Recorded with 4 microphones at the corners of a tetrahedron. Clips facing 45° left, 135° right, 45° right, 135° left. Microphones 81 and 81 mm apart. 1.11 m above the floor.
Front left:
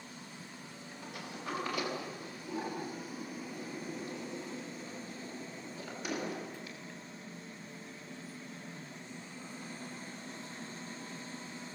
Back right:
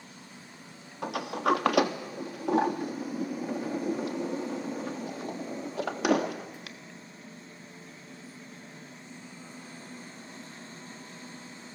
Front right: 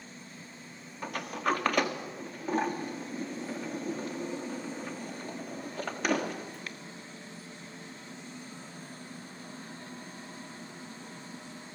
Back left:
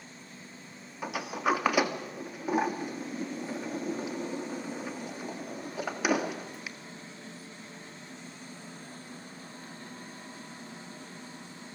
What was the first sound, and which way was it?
A sliding door, 145° right.